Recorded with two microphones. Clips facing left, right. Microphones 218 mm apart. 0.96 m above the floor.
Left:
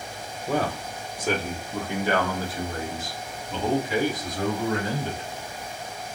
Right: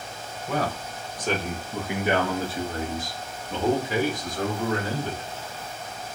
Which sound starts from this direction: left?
A man speaking, at 0.5 s.